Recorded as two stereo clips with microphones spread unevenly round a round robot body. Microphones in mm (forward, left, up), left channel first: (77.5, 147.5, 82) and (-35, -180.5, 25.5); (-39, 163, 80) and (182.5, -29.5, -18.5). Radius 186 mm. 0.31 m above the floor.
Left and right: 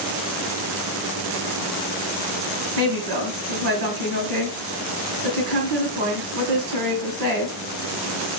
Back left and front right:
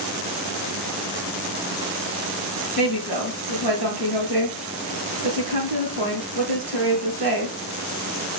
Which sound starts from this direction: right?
A woman speaking, at 2.8 s.